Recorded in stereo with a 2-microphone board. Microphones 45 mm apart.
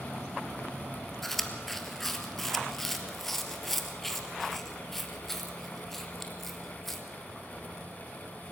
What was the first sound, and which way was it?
Chewing, 5° left (ahead or behind).